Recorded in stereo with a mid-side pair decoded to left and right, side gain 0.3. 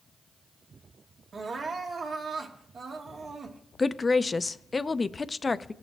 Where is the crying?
70° right, 1.6 m.